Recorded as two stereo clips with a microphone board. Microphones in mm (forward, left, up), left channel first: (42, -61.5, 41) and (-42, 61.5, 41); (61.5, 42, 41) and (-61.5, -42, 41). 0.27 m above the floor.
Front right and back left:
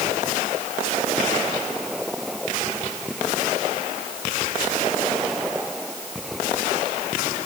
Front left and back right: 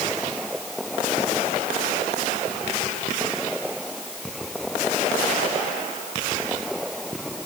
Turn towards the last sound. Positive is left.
No sound to turn to.